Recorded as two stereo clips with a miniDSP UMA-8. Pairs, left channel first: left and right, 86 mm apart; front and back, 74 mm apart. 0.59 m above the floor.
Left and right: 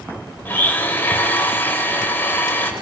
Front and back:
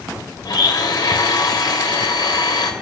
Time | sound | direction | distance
0.5 | a blender | 25° left | 2.5 m